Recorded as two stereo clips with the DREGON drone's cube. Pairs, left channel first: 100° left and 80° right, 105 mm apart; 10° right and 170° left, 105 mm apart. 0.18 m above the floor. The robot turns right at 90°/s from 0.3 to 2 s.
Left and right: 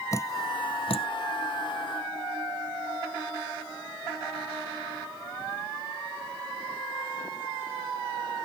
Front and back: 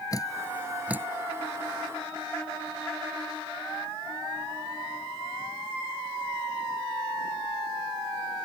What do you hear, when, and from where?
0.1 s dripping: 40° left; by 1.1 s 110° left